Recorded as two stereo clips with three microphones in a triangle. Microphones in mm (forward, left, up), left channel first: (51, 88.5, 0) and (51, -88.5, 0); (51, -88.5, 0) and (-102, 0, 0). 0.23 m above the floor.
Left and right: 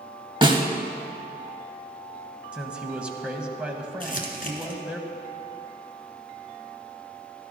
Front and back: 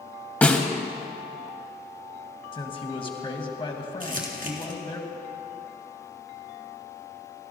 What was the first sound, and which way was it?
A snare drum, 100° right.